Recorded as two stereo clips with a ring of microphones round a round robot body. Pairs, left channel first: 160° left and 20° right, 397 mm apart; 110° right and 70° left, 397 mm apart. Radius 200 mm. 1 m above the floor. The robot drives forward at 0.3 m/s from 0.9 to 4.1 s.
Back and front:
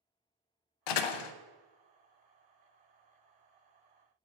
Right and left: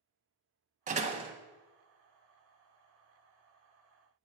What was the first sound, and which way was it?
A door slam, 140° left.